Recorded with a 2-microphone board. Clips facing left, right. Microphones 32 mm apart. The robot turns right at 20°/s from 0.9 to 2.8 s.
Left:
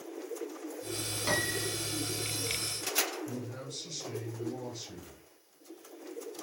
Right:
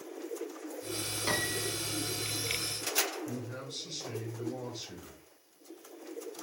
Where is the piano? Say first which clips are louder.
Left 1 dB; 5° right (ahead or behind), 1.1 m; by 1.7 s 10° right (ahead or behind), 1.1 m.